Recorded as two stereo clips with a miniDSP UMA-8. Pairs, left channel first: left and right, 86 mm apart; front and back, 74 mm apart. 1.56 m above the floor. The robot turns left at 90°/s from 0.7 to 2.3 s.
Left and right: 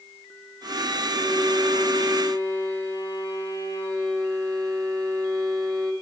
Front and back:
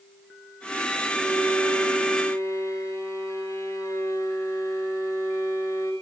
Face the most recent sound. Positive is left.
turn(degrees=-50)